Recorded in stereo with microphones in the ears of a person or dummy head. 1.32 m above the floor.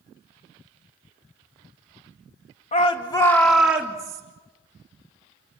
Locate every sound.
2.7 s a shout: 30° left (ahead or behind), 2 m; by 4.2 s 15° right (ahead or behind), 3 m